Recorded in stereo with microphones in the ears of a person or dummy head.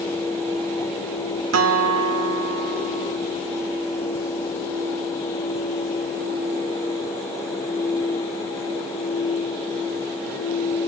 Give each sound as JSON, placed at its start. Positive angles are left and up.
{"t": 1.5, "sound": "a guitar", "side_deg": -85, "distance_m": 1.2}